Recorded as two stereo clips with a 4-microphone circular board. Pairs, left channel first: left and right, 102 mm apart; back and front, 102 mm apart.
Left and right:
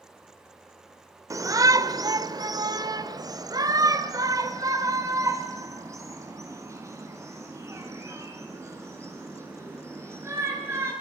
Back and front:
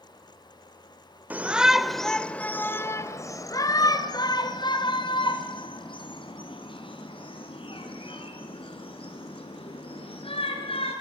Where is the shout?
65° right, 1.3 m; by 10.9 s 155° right, 6.5 m.